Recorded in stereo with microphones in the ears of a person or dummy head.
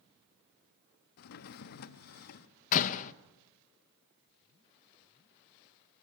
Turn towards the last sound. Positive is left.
turn(degrees=45)  # may be behind; listen again after turning